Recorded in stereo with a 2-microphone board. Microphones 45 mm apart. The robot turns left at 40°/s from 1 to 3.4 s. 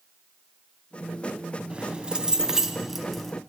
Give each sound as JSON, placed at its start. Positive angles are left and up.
{"t": 1.7, "sound": "keys jangling", "azimuth_deg": -120, "distance_m": 0.7}